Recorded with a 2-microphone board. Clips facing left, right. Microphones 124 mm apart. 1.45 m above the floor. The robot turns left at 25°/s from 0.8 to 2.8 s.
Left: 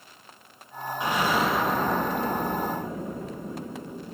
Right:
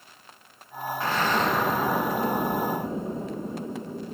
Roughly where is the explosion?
Ahead.